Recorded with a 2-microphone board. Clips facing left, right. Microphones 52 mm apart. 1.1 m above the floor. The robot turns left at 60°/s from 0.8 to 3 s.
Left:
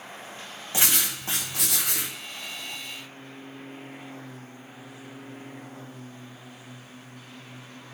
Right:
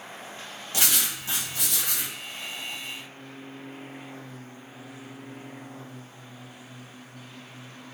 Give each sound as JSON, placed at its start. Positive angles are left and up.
{"t": 0.7, "sound": "writing", "azimuth_deg": 150, "distance_m": 1.0}